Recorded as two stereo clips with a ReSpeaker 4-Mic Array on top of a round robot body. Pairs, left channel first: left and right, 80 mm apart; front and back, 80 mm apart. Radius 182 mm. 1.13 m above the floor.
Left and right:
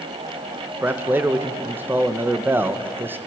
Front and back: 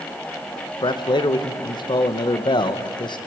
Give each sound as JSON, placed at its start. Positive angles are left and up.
{"t": 0.8, "sound": "a man speaking", "azimuth_deg": -25, "distance_m": 1.6}